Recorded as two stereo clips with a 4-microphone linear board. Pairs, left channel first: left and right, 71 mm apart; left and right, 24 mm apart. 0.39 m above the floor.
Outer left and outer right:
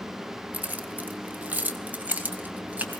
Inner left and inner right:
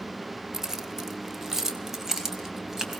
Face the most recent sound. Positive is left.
turn(degrees=-25)  # may be behind; listen again after turning